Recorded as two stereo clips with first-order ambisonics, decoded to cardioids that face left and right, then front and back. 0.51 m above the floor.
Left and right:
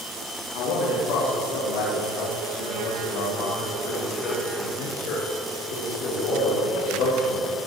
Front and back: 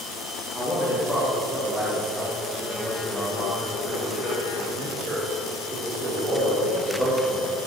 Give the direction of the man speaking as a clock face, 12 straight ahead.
9 o'clock.